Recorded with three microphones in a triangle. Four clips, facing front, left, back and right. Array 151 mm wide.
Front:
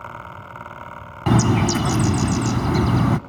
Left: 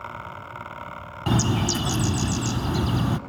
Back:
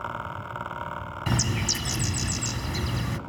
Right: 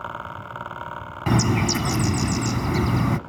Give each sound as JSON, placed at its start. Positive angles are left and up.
{"t": 1.3, "sound": "a bird", "azimuth_deg": -10, "distance_m": 0.7}